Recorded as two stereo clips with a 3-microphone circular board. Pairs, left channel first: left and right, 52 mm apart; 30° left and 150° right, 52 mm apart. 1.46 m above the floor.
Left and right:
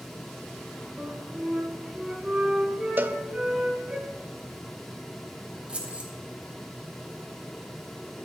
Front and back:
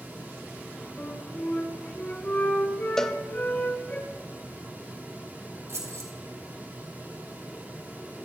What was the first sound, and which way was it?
A flute, 25° right.